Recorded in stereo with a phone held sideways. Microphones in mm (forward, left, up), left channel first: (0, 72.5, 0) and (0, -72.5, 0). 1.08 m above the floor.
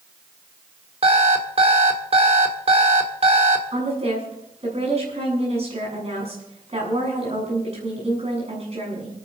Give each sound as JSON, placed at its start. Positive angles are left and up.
{"t": 1.0, "sound": "an alarm clock", "side_deg": -45, "distance_m": 1.7}
{"t": 3.7, "sound": "a woman speaking", "side_deg": -45, "distance_m": 8.0}